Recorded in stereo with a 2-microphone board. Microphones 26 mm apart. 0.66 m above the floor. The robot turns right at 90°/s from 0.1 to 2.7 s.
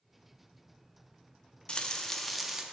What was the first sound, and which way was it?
Frying, 115° left.